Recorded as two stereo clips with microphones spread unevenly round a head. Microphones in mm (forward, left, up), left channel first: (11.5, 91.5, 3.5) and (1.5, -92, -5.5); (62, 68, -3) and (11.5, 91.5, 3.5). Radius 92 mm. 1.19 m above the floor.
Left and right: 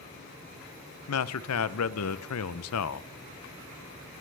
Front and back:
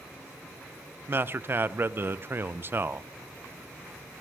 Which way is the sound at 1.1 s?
100° left.